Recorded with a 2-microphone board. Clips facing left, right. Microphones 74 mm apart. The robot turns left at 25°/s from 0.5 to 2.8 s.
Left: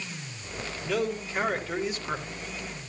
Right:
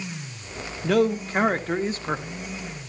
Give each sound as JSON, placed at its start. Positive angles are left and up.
{"t": 0.8, "sound": "a man speaking", "azimuth_deg": -110, "distance_m": 1.5}